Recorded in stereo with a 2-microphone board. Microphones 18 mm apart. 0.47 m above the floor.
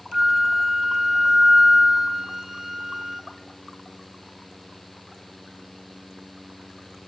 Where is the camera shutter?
I don't hear a camera shutter.